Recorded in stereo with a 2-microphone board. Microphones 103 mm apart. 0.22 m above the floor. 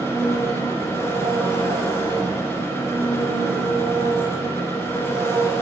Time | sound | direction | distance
0.0 | an engine running | 25° left (ahead or behind) | 1.5 m